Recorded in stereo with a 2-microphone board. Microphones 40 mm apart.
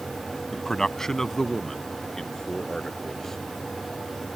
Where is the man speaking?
10° left (ahead or behind).